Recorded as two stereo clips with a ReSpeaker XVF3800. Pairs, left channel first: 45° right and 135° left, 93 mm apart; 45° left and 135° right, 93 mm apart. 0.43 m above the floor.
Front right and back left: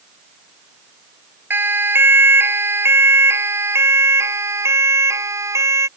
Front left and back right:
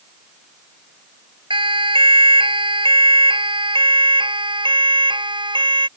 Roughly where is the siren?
Behind.